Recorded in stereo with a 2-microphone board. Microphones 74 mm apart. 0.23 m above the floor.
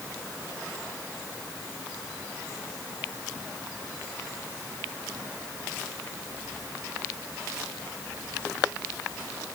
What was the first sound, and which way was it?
Only background noise.